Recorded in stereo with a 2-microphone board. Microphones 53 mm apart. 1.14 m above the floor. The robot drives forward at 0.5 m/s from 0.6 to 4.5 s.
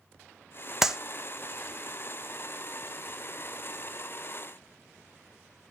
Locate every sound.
0.8 s a clap: 5° right (ahead or behind), 0.8 m